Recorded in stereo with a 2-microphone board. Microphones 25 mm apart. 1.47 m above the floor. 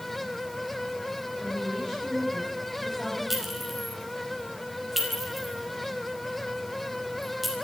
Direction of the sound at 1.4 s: 15° left (ahead or behind).